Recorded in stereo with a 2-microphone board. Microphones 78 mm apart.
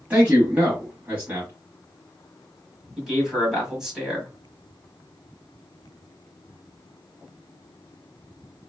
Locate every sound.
0.1 s a man speaking: 20° right (ahead or behind), 1.2 m
3.0 s a man speaking: 5° right (ahead or behind), 1.6 m